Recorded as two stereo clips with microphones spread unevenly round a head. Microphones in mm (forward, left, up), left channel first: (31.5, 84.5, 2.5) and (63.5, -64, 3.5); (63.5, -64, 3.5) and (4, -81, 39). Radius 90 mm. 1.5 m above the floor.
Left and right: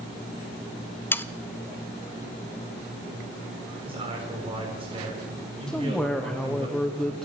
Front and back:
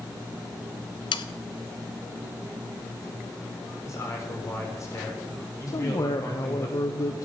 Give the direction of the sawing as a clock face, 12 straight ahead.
11 o'clock.